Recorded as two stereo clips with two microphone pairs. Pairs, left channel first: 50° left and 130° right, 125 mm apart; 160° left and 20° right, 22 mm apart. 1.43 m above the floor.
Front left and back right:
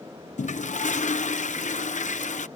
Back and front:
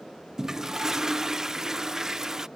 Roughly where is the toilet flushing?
Ahead left.